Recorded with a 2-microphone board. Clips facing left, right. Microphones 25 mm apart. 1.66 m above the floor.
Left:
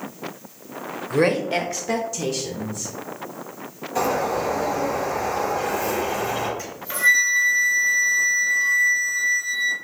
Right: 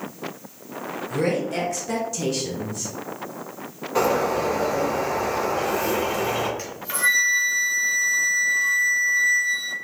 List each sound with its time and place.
1.1 s a woman speaking: 50° left (ahead or behind), 0.9 m; by 2.9 s 30° right (ahead or behind), 0.9 m
4.0 s a bird: 45° right (ahead or behind), 2 m
6.6 s a flute: 50° right (ahead or behind), 2 m